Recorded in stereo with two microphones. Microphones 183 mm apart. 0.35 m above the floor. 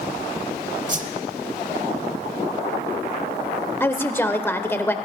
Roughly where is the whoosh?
Right.